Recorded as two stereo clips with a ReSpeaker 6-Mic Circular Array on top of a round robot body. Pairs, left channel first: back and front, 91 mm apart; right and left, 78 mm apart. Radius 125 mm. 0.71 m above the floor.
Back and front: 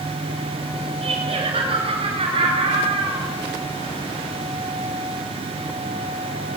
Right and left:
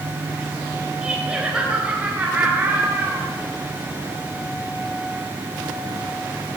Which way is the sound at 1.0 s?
5° left.